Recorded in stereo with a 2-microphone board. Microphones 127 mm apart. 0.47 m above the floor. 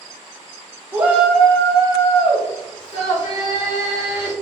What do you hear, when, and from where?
0.9 s a shout: 20° right (ahead or behind), 0.8 m; by 4.3 s 65° left (ahead or behind), 2 m